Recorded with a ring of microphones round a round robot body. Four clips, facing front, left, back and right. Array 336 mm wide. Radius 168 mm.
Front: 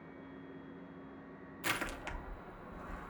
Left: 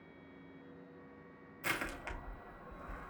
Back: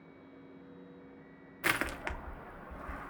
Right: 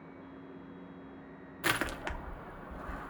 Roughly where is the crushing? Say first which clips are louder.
Right 7 dB, back 5 dB; behind right.